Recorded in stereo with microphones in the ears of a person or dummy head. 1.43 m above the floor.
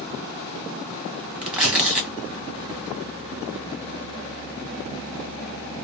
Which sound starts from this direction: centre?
Tearing paper, at 1.4 s.